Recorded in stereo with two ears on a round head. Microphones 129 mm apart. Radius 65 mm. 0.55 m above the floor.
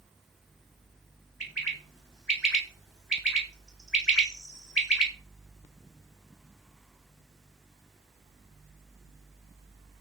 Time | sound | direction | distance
1.4 | a bird | 5° right (ahead or behind) | 0.9 m